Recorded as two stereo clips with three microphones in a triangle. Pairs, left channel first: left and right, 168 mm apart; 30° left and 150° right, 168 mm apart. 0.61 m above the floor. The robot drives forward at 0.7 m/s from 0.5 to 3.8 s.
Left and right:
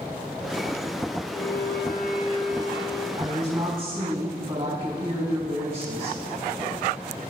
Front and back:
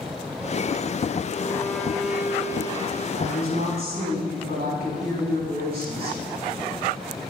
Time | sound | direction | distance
1.4 | a violin | 90° left | 0.7 m
3.2 | a woman speaking | 140° right | 4 m